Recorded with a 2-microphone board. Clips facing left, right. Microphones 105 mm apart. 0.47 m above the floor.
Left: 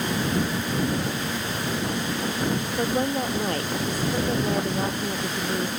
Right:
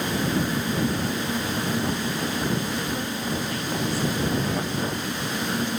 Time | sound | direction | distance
2.8 | a woman speaking | 60° left (ahead or behind) | ?